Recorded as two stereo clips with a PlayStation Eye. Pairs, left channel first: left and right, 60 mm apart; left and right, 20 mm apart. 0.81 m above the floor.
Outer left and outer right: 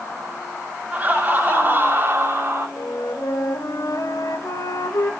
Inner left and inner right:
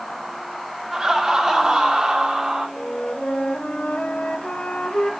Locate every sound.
0.9 s laughter: 25° right (ahead or behind), 2.5 m; by 2.7 s 45° right (ahead or behind), 3 m
2.8 s a flute: 80° left, 1.6 m